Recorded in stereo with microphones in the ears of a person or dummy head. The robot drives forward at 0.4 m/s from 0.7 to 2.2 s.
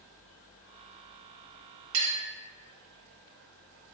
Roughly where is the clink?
Right.